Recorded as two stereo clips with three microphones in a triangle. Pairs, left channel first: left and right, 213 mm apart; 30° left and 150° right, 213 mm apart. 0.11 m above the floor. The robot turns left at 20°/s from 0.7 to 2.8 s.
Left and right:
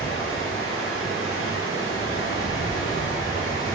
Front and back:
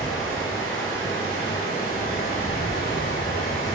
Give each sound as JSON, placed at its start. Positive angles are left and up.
{"t": 0.0, "sound": "running water", "azimuth_deg": 105, "distance_m": 2.5}